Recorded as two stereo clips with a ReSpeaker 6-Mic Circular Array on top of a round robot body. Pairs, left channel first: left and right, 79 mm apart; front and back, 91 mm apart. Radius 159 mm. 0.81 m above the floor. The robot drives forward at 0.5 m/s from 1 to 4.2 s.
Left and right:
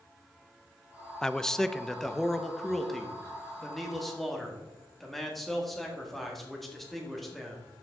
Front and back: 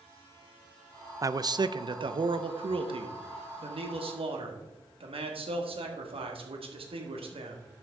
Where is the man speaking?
165° left, 0.6 m; by 7.7 s straight behind, 1.8 m.